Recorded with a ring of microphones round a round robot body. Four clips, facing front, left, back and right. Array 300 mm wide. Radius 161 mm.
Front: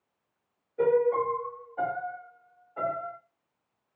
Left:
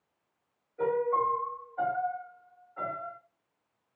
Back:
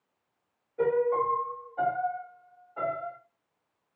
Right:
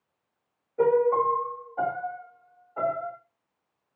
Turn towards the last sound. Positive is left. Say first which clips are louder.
# right 6 dB, front 2 dB
turn(degrees=-75)